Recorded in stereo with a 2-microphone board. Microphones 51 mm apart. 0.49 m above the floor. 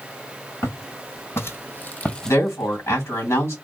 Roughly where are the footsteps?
Left.